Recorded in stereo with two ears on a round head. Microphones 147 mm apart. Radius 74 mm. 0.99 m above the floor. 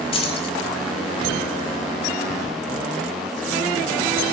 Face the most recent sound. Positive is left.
turn(degrees=35)  # may be behind; listen again after turning